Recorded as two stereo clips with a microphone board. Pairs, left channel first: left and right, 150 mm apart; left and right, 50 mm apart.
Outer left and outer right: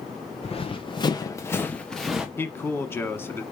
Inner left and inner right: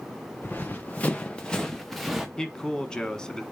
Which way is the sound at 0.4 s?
45° left (ahead or behind).